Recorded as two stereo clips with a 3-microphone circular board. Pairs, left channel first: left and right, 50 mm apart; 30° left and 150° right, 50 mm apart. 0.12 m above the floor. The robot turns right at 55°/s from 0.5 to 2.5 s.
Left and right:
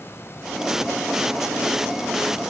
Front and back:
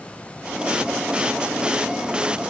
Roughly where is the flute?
I don't hear a flute.